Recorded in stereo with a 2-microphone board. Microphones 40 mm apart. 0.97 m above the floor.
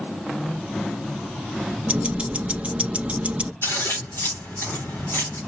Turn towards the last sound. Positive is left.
turn(degrees=85)